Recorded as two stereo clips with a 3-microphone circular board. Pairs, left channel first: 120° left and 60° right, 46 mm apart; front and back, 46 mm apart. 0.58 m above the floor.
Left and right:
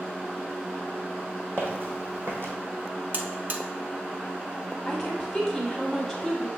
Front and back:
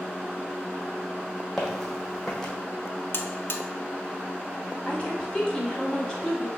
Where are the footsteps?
85° right, 1.2 m.